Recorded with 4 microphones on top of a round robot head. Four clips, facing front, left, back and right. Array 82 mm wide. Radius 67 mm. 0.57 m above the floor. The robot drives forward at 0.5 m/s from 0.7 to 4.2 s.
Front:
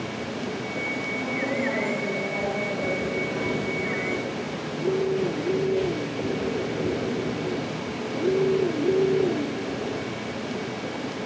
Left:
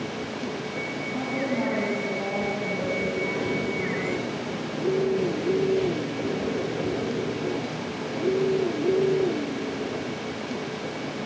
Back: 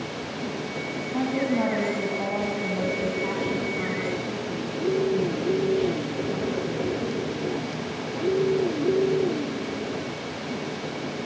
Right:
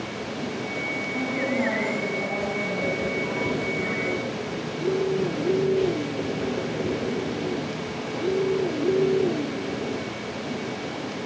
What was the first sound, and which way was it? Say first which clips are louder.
A woman speaking: right 1 dB, back 5 dB; 175° left.